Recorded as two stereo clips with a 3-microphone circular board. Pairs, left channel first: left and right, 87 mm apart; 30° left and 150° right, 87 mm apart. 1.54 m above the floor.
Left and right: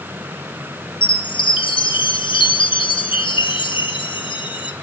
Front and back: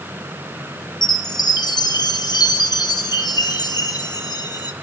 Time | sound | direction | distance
1.0 | a chime | 70° left | 1.5 m